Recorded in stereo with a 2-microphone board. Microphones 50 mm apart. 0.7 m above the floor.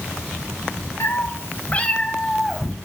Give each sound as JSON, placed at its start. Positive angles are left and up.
{"t": 1.0, "sound": "a cat meowing", "side_deg": 50, "distance_m": 0.7}